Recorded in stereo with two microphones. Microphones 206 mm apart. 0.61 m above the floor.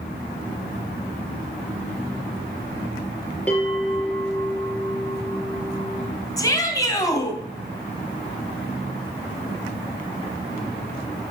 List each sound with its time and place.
3.5 s a bell: 10° left (ahead or behind), 4.5 m
6.4 s a shout: 15° left (ahead or behind), 3.5 m